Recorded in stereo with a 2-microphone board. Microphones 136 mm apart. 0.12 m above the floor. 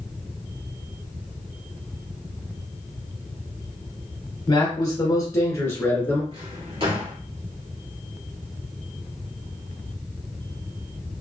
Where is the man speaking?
35° left (ahead or behind), 1.3 m; by 6.2 s 10° left (ahead or behind), 1.3 m.